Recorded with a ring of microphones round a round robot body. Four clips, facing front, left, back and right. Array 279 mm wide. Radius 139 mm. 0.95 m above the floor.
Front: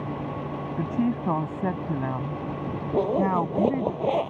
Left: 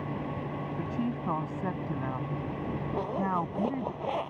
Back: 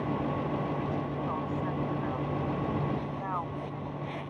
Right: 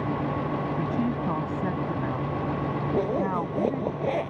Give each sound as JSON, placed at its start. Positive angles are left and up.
{"t": 0.8, "sound": "a woman speaking", "azimuth_deg": -15}
{"t": 2.9, "sound": "a zipper", "azimuth_deg": -30}